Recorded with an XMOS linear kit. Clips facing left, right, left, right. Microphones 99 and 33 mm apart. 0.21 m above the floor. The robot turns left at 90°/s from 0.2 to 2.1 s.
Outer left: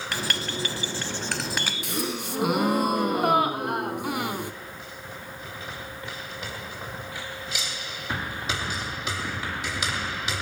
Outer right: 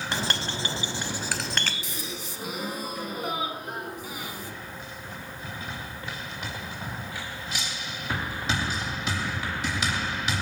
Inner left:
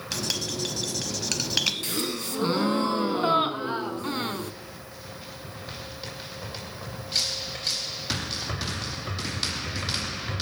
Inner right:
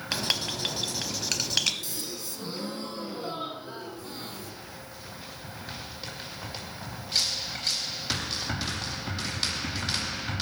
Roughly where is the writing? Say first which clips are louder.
Even, inner right 1 dB; right.